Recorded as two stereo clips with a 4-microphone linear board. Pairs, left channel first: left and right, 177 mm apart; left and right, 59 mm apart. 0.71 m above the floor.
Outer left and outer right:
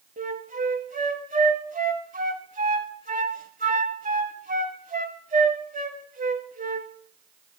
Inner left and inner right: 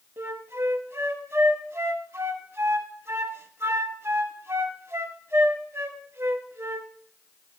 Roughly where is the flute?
Right.